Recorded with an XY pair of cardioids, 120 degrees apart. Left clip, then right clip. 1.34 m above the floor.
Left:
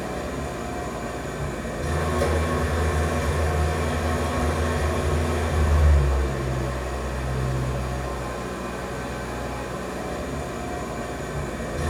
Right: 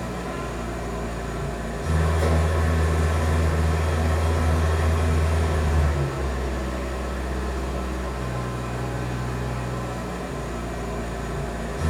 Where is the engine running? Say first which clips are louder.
Left 1 dB; 65° left, 1.1 m.